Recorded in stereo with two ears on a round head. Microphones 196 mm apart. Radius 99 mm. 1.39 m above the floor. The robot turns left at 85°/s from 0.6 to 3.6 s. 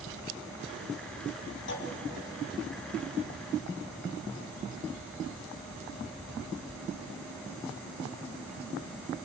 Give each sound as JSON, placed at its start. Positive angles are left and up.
{"t": 1.7, "sound": "a clunk", "side_deg": 60, "distance_m": 2.5}